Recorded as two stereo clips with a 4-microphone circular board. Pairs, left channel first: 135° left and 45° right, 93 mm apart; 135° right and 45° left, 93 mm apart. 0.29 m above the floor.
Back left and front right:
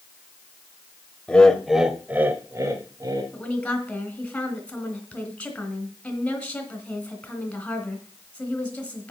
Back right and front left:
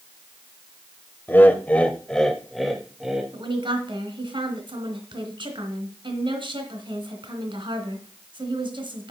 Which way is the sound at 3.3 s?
60° left.